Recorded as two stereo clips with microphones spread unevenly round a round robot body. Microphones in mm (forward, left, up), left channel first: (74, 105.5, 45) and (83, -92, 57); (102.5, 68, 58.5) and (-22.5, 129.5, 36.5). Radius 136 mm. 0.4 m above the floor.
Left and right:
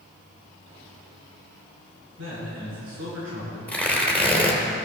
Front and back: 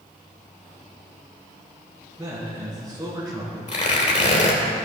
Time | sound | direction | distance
2.2 | a man speaking | 130° right | 5 m
3.7 | tearing paper | 10° left | 3 m